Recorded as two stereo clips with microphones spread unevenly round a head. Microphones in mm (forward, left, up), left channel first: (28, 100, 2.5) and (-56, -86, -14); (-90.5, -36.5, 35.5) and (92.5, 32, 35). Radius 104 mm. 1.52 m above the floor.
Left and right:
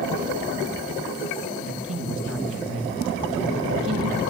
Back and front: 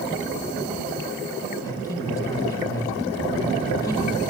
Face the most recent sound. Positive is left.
turn(degrees=-85)